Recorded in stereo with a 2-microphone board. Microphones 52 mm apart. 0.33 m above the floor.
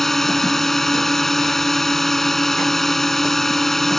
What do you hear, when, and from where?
0.0 s a drone: 5° left (ahead or behind)